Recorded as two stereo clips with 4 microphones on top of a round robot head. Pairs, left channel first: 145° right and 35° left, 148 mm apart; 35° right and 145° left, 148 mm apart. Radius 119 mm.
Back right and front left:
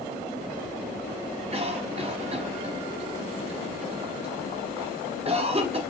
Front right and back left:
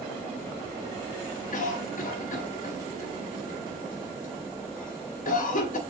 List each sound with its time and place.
1.5 s a cough: 10° right, 1.2 m